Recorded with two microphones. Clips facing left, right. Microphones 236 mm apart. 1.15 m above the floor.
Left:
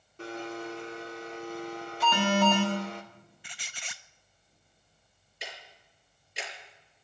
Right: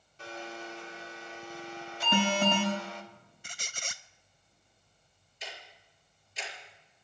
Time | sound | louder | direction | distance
0.2 | a blender | left 6 dB | 55° left (ahead or behind) | 2 m
2.0 | an alarm | left 3 dB | 25° right (ahead or behind) | 7.5 m
3.4 | a squeak | right 7 dB | 45° right (ahead or behind) | 0.5 m
5.4 | ticking | left 2 dB | 70° left (ahead or behind) | 5.5 m